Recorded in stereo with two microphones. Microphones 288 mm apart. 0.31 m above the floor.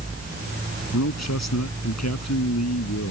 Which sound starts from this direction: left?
A man speaking, at 0.9 s.